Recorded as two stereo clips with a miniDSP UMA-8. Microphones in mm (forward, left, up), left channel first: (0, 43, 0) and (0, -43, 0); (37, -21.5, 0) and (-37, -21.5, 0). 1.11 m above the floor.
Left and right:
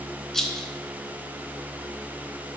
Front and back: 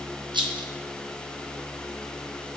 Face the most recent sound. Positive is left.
turn(degrees=175)